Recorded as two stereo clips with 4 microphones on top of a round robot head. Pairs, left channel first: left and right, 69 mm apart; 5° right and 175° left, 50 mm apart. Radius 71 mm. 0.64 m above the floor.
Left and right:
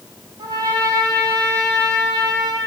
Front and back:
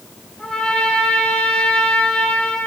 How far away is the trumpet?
About 6 m.